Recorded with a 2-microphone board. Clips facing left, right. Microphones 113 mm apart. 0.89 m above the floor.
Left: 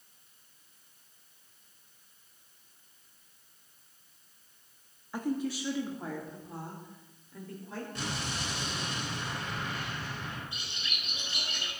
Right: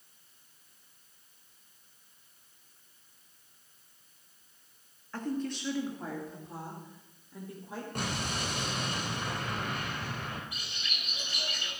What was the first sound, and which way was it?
A woman speaking, 10° left (ahead or behind).